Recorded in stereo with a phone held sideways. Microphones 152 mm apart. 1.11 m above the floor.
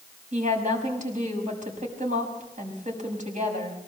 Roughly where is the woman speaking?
Right.